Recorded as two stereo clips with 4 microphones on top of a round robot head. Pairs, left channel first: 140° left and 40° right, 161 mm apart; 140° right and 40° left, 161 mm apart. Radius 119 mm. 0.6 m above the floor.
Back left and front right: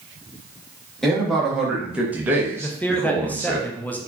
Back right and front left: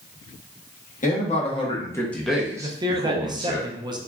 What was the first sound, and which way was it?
A man speaking, 130° right.